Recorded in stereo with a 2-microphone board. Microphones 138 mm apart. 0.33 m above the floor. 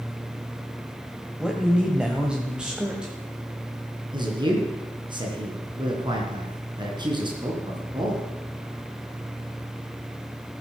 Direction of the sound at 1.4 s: 5° right (ahead or behind).